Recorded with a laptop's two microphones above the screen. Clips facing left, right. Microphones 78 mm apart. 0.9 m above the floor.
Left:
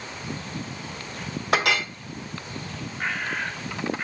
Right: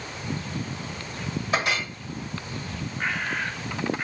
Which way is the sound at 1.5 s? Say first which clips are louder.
Left 4 dB; 75° left (ahead or behind).